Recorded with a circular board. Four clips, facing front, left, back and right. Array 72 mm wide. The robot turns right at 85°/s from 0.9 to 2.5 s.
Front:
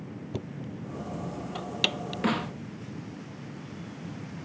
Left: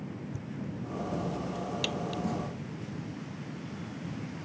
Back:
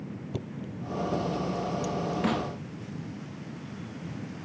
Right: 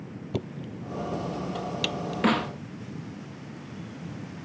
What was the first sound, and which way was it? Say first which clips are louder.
Knocking: right 4 dB, front 1 dB; 90° right.